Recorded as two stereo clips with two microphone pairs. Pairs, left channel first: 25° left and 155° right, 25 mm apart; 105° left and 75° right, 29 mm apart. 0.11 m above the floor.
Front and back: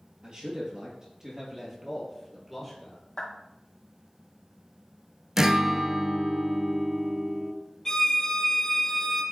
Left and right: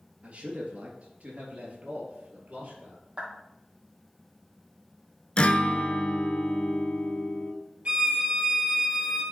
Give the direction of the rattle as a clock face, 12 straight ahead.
I don't hear a rattle.